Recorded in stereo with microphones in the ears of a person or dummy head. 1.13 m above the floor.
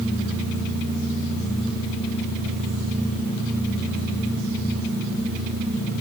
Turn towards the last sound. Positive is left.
No sound to turn to.